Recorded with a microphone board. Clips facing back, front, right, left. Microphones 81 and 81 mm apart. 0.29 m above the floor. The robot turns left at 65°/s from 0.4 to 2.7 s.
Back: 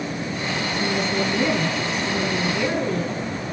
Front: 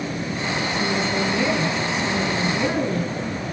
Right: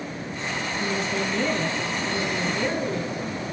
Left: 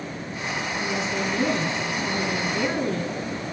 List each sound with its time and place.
0.8 s a woman speaking: 170° left, 3.5 m; by 3.1 s 45° left, 3.5 m